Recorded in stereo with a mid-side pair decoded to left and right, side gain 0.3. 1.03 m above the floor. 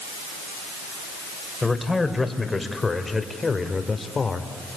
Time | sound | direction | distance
1.6 | a man speaking | 25° left | 4 m